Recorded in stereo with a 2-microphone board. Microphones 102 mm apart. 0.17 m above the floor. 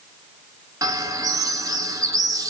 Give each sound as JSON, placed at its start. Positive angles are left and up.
{"t": 0.8, "sound": "a bird", "side_deg": -35, "distance_m": 0.5}